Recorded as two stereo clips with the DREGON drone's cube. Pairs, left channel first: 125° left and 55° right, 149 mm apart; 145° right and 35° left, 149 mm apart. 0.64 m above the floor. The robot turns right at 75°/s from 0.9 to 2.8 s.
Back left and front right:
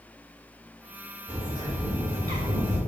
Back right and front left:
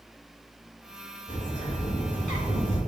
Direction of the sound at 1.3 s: 135° right.